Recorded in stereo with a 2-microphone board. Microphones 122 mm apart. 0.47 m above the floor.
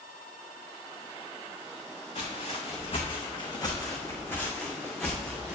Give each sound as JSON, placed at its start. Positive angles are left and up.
{"t": 2.1, "sound": "footsteps", "side_deg": 65, "distance_m": 1.9}